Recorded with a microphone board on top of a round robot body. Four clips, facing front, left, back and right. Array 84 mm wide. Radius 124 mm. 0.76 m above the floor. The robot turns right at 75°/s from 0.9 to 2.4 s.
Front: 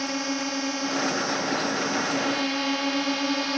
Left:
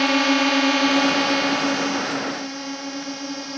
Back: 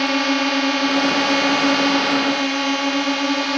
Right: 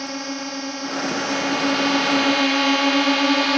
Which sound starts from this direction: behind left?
A drone, at 0.0 s.